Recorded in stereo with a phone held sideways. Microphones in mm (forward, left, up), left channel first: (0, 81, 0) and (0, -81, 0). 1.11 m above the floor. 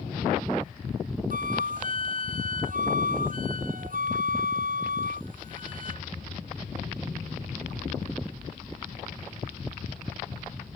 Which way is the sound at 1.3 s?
60° right (ahead or behind).